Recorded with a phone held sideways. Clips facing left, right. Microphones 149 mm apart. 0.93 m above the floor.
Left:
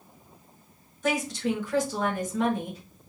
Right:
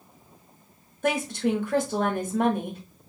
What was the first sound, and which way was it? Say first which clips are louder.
A woman speaking: right 2 dB; 55° right (ahead or behind).